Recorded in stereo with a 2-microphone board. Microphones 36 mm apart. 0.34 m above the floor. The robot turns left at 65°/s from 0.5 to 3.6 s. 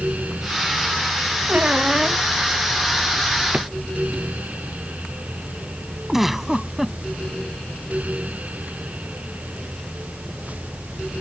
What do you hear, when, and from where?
1.5 s a squeak: 135° right; by 2.2 s straight behind
3.5 s a drawer: 40° right (ahead or behind); by 3.7 s 35° right (ahead or behind)
6.1 s a giggle: 5° right (ahead or behind)